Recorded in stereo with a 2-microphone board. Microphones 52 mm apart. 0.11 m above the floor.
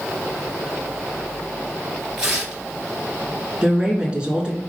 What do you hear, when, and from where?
2.2 s tearing paper: 10° right (ahead or behind), 2.0 m
3.6 s a woman speaking: 20° right (ahead or behind), 1.1 m